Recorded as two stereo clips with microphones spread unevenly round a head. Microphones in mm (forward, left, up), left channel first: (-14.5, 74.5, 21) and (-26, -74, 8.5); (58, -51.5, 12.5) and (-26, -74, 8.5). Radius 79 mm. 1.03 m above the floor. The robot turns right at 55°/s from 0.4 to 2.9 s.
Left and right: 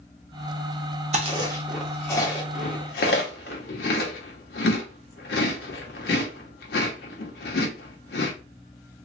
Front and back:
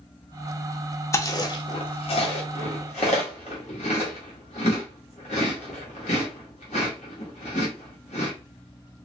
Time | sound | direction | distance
1.1 | chewing | 45° right | 0.8 m